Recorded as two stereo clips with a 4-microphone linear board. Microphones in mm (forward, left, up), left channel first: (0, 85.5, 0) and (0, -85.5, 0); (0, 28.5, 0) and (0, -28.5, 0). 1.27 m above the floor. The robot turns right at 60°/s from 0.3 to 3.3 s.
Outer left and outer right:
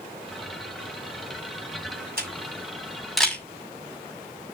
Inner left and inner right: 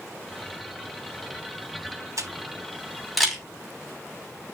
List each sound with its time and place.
2.2 s a camera shutter: 60° right (ahead or behind), 5.5 m; by 3.4 s 5° left (ahead or behind), 5.5 m